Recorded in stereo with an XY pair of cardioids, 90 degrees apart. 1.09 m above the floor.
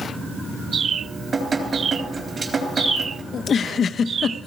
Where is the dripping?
45° right, 3.5 m.